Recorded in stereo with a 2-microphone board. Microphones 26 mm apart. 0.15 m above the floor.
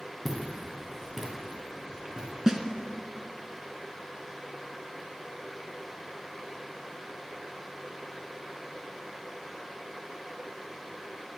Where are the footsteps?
Centre (ahead or behind), 2.5 m; by 2.4 s 30° right (ahead or behind), 2 m.